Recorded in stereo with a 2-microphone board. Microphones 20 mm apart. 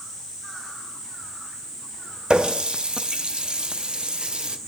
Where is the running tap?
60° right (ahead or behind), 0.6 m.